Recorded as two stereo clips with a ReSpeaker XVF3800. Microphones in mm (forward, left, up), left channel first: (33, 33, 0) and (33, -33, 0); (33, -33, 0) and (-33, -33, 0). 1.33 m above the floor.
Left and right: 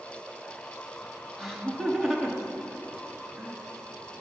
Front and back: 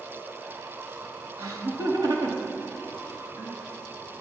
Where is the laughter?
Straight behind, 3 m.